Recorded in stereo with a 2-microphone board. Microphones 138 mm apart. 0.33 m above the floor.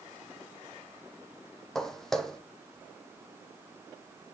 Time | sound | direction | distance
1.8 | footsteps | 5° left (ahead or behind) | 0.7 m